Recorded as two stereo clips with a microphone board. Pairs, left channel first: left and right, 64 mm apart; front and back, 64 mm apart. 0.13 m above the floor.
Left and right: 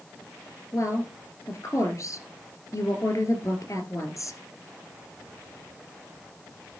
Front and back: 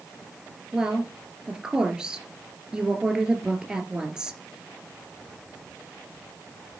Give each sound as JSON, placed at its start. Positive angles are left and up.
{"t": 0.7, "sound": "a woman speaking", "azimuth_deg": 100, "distance_m": 2.0}